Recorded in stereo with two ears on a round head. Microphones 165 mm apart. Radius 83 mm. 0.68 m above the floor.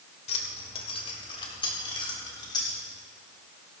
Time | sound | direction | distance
0.3 | keys jangling | 35° left (ahead or behind) | 2 m